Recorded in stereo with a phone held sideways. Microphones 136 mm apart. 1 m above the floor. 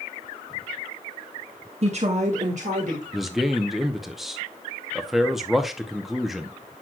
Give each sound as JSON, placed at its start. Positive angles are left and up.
{"t": 1.8, "sound": "a woman speaking", "side_deg": -50, "distance_m": 1.0}
{"t": 3.1, "sound": "a man speaking", "side_deg": 0, "distance_m": 0.6}